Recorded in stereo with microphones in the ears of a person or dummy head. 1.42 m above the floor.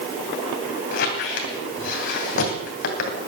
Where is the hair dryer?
No hair dryer in this recording.